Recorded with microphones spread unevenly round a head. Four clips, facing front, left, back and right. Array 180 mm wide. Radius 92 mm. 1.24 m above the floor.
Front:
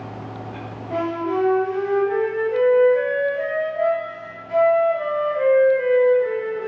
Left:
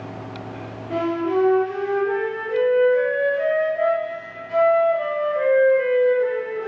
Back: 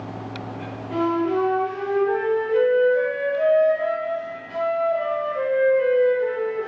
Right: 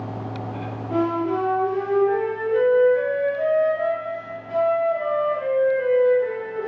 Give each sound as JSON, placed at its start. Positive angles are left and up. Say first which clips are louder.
{"t": 0.9, "sound": "a flute", "louder": "left 1 dB, back 1 dB", "azimuth_deg": 85, "distance_m": 1.5}